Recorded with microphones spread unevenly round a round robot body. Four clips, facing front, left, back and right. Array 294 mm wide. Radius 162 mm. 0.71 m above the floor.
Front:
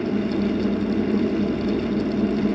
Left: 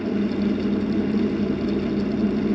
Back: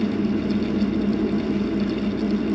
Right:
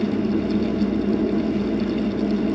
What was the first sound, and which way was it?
Only background noise.